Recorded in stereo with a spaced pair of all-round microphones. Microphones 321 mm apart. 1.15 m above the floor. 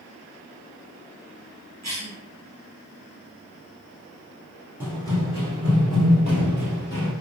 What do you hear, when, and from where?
1.8 s a cough: 55° right (ahead or behind), 0.8 m
4.8 s running footsteps: 10° left (ahead or behind), 1.3 m; by 7.1 s 40° left (ahead or behind), 1.4 m